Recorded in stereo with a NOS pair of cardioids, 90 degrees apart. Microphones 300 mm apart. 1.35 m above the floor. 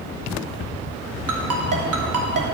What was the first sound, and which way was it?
A ringtone, 55° right.